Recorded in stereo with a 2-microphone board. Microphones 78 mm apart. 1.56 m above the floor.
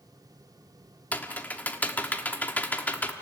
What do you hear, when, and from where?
1.1 s typing on a keyboard: 20° left (ahead or behind), 1.2 m